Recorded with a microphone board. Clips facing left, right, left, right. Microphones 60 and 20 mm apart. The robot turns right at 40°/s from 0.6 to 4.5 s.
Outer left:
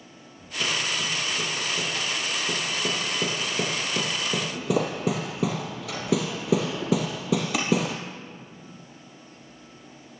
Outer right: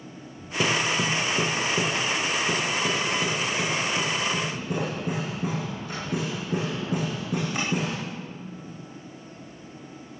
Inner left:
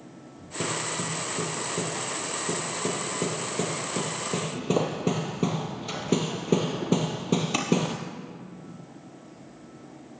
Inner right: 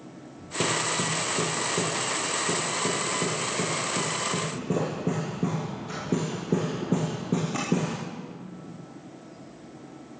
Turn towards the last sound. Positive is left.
turn(degrees=75)  # may be behind; listen again after turning